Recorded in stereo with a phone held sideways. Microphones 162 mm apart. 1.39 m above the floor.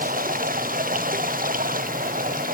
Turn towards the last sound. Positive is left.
turn(degrees=-60)  # may be behind; listen again after turning